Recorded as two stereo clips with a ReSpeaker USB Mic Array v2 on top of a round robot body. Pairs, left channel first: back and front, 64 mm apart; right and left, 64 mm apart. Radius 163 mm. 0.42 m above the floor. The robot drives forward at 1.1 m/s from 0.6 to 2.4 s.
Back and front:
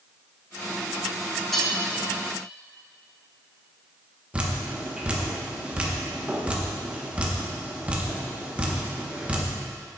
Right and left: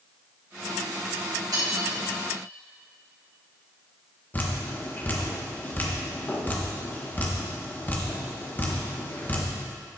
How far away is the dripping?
About 1.2 m.